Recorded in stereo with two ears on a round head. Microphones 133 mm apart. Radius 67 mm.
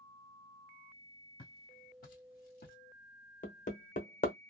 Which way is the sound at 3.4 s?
55° left (ahead or behind).